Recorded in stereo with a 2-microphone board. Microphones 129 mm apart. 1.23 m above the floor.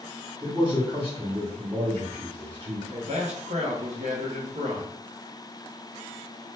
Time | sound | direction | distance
0.4 | a man speaking | 35° right (ahead or behind) | 1.2 m
2.9 | a man speaking | 60° right (ahead or behind) | 0.8 m